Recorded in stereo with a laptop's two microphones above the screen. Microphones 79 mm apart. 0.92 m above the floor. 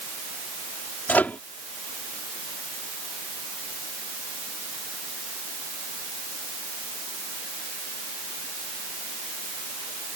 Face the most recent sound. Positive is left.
turn(degrees=20)  # may be behind; listen again after turning